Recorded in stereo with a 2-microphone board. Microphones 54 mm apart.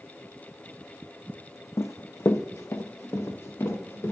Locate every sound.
1.8 s running footsteps: 60° left (ahead or behind), 0.5 m; by 4.1 s 55° left (ahead or behind), 2.5 m